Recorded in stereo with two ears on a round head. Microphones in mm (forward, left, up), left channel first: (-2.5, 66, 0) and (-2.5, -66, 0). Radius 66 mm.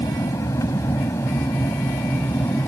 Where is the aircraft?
20° left (ahead or behind); by 2.7 s 15° left (ahead or behind).